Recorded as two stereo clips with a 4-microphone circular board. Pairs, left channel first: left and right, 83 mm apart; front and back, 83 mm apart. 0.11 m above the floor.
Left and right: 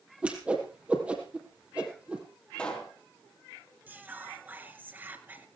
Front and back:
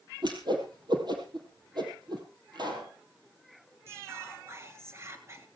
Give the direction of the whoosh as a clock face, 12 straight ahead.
5 o'clock.